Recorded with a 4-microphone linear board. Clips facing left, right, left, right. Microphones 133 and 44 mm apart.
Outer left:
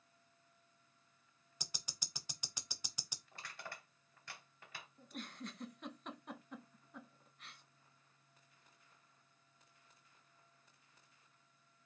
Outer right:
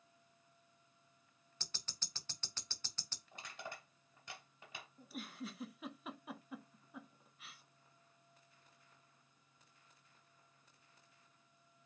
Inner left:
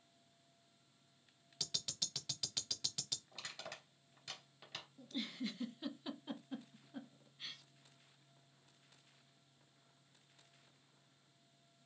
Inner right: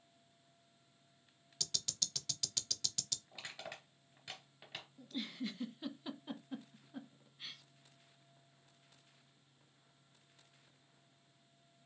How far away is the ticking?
About 0.6 m.